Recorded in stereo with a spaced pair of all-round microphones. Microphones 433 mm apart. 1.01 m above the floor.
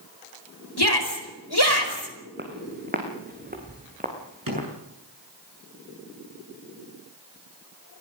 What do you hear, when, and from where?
0.8 s a shout: 60° left (ahead or behind), 4.5 m
2.4 s footsteps: 25° right (ahead or behind), 3.5 m; by 4.7 s 20° right (ahead or behind), 5 m
4.5 s a drawer: 50° right (ahead or behind), 8 m